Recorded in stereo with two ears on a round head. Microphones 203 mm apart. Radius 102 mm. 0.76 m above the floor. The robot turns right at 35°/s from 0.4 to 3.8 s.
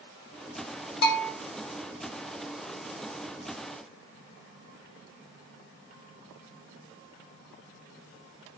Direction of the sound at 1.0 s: 45° left (ahead or behind).